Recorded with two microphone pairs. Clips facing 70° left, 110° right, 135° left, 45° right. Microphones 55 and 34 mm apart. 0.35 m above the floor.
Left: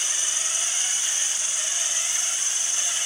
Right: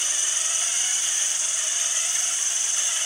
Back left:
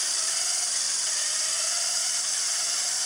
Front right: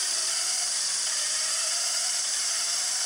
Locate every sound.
0.0 s an insect: 20° left, 10 m